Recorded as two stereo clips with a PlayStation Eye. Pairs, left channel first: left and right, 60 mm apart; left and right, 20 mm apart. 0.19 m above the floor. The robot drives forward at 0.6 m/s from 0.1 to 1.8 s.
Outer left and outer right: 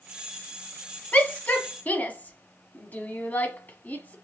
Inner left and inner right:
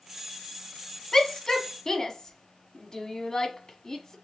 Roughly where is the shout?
Left.